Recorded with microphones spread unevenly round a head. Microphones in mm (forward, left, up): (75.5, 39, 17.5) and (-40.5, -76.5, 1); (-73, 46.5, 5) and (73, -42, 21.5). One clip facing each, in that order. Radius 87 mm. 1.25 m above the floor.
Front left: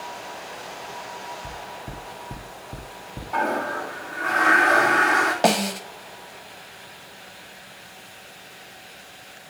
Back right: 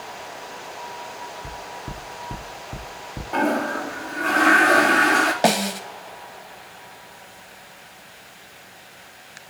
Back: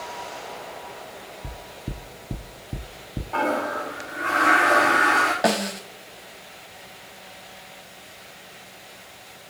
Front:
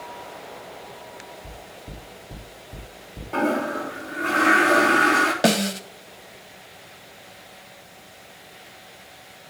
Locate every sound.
1.4 s knocking: 145° left, 2.5 m
3.3 s a toilet flushing: 85° right, 3 m
5.4 s a snare drum: 45° right, 1.3 m